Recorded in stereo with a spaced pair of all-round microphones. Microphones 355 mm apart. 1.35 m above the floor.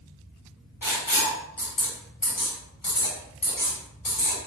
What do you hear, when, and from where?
0.8 s writing: 75° left (ahead or behind), 1.0 m